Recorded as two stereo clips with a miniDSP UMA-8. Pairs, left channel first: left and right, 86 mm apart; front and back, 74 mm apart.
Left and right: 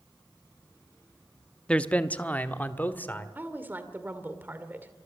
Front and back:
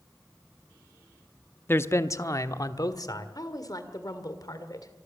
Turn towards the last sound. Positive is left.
turn(degrees=-25)